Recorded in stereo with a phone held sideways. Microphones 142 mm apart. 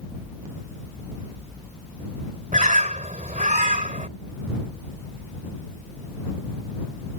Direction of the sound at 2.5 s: 70° right (ahead or behind).